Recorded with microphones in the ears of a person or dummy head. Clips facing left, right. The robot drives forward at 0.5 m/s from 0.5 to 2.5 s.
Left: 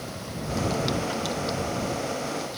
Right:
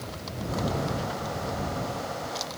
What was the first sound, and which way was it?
Only background noise.